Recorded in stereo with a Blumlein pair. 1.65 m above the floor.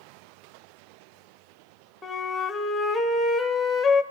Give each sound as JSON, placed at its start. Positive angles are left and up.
{"t": 2.0, "sound": "a flute", "azimuth_deg": 10, "distance_m": 1.0}